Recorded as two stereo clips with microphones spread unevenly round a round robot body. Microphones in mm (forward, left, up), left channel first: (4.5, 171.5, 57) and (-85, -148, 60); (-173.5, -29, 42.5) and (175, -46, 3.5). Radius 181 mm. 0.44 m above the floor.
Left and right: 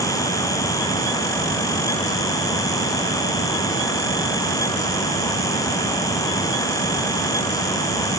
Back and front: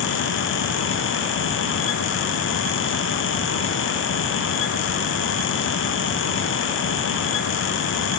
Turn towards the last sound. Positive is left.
No sound to turn to.